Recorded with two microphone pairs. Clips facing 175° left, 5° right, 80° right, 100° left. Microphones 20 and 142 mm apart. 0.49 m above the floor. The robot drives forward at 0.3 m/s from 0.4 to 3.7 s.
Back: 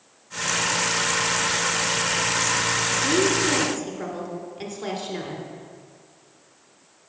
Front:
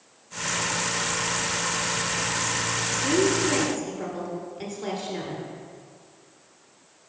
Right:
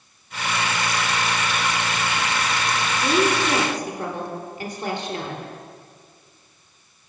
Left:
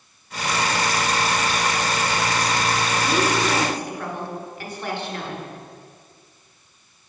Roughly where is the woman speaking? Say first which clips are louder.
Even, right 3 dB; behind right.